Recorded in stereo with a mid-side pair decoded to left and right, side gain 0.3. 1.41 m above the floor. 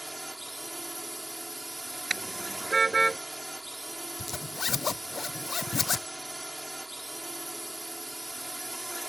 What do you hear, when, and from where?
0.0 s a drone: 15° right
2.1 s a car horn: 35° right
4.2 s a zipper: 50° left